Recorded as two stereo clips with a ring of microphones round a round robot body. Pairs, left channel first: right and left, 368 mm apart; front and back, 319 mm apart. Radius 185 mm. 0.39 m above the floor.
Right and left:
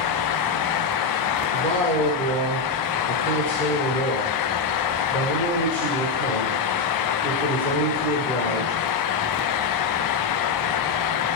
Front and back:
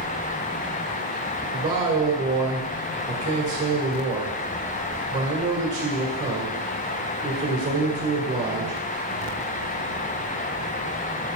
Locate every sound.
1.5 s a man speaking: 130° right, 1.5 m